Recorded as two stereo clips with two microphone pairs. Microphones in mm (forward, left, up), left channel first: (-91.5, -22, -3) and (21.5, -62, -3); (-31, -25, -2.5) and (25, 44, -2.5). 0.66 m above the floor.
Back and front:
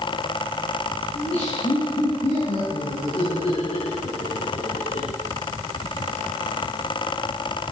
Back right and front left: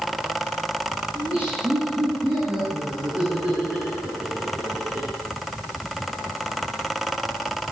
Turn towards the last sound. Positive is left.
turn(degrees=125)